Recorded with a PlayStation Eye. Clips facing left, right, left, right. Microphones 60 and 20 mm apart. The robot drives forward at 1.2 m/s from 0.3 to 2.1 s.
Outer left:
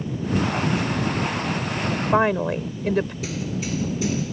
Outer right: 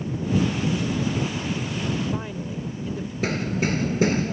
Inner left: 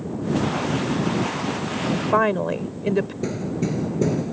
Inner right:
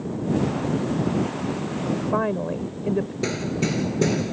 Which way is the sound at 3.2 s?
45° right (ahead or behind).